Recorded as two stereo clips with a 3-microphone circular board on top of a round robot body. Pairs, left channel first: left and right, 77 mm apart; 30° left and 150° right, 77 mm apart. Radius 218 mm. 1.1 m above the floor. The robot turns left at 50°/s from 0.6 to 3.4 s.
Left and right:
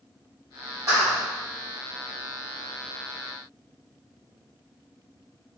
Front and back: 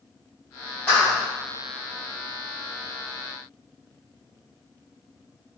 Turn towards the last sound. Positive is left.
turn(degrees=-165)